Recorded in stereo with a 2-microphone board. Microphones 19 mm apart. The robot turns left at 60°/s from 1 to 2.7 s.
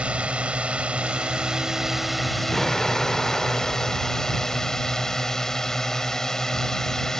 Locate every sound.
0.0 s a drone: 105° right; by 7.2 s 150° left
2.5 s an explosion: 10° left (ahead or behind); by 4.6 s 20° left (ahead or behind)